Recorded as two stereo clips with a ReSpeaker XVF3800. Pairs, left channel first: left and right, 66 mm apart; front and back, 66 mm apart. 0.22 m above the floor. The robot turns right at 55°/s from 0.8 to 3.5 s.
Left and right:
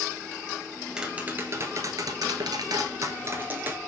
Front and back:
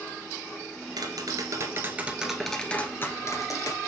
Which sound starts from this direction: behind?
Tapping, at 1.0 s.